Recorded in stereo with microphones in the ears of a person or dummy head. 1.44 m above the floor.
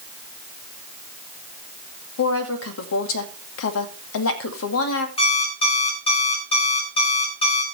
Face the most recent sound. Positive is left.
turn(degrees=25)  # may be behind; listen again after turning